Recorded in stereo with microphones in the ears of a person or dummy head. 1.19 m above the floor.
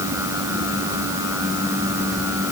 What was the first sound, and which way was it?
Only background noise.